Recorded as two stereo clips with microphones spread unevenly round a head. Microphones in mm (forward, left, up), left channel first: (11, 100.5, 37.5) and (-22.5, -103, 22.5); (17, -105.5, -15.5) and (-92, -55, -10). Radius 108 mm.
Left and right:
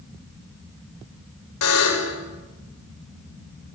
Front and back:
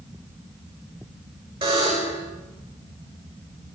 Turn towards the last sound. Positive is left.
turn(degrees=85)